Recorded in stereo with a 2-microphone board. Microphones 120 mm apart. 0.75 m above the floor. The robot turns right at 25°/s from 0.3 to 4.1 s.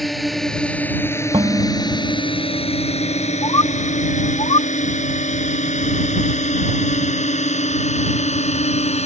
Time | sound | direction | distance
0.0 | a drone | centre (ahead or behind) | ?
1.3 | dishes clattering | 40° right (ahead or behind) | ?
3.4 | a bird | 35° left (ahead or behind) | ?